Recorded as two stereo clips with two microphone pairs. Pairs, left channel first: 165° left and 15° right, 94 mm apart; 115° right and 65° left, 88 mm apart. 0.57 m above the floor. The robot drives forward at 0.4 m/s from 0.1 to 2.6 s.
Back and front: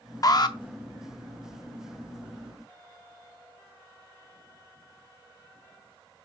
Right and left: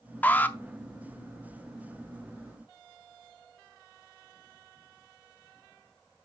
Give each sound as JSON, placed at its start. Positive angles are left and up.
{"t": 0.2, "sound": "an alarm", "azimuth_deg": -170, "distance_m": 0.5}